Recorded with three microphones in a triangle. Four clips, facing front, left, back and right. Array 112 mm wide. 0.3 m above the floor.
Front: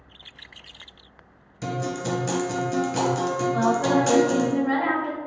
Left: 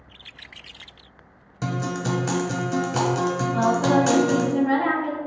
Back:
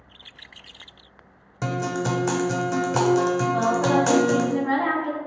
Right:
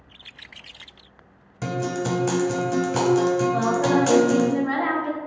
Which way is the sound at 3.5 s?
120° right.